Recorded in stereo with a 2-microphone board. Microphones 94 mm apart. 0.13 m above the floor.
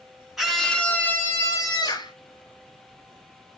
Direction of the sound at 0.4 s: 5° right (ahead or behind).